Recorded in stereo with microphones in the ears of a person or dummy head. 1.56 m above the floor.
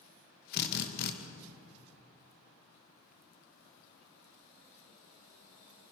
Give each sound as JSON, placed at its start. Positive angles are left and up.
{"t": 0.5, "sound": "a drill", "side_deg": 60, "distance_m": 2.0}